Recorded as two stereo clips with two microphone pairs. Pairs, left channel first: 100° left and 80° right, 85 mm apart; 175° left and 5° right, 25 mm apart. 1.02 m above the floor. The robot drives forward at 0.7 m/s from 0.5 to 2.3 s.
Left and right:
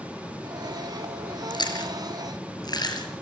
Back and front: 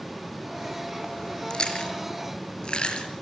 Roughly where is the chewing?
Behind left.